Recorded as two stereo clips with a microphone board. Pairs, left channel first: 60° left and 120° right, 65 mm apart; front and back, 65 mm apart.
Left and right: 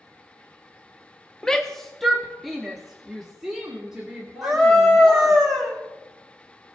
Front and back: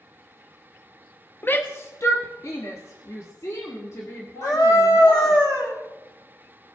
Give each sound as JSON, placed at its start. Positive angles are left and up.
{"t": 1.4, "sound": "a shout", "azimuth_deg": -5, "distance_m": 0.5}
{"t": 4.4, "sound": "a scream", "azimuth_deg": -30, "distance_m": 3.0}